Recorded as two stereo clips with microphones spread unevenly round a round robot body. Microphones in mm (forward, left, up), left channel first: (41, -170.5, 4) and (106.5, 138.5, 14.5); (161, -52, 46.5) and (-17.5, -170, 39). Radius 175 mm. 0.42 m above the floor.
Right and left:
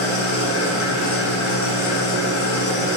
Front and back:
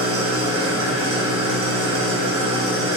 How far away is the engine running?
About 1.0 m.